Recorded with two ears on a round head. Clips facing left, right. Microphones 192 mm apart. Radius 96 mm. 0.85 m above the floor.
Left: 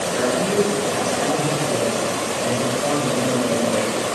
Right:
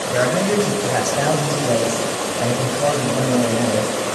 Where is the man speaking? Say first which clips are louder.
Right 2 dB; 80° right, 5 m.